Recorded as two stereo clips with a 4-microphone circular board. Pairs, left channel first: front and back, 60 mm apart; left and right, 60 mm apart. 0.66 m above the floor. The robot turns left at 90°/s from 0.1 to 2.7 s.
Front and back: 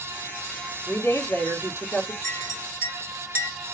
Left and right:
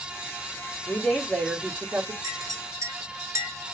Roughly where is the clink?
Right.